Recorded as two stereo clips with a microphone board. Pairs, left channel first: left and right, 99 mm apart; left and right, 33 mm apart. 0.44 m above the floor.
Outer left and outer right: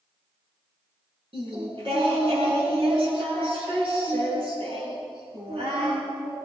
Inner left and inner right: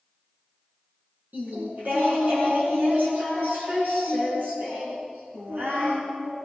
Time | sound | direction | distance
1.3 | singing | 65° right (ahead or behind) | 4.5 m